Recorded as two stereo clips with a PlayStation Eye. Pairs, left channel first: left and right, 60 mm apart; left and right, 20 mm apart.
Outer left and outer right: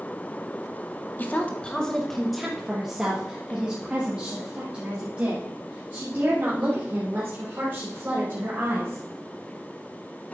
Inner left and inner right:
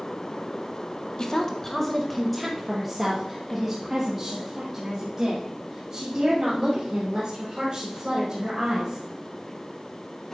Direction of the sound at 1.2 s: 35° left (ahead or behind).